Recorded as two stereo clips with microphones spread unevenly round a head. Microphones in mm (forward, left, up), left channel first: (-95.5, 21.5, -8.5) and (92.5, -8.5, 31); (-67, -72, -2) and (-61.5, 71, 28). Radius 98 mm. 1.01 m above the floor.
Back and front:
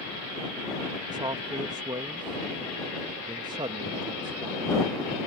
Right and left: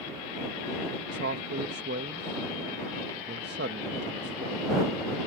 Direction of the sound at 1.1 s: 65° left.